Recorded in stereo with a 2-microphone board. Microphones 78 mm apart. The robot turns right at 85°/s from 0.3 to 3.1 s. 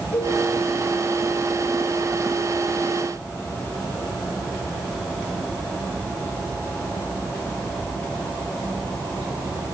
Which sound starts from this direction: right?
A cowbell, at 0.1 s.